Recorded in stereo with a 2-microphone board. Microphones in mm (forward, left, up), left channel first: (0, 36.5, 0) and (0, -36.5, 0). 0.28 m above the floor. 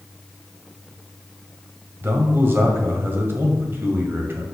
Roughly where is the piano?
No piano in this recording.